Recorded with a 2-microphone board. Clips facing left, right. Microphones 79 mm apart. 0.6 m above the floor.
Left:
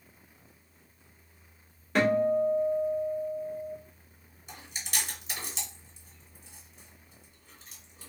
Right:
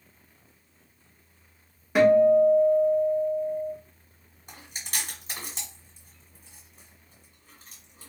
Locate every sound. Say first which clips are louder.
1.9 s a guitar: right 7 dB; 10° right (ahead or behind), 1.1 m
4.5 s chewing: even; 50° right (ahead or behind), 1.3 m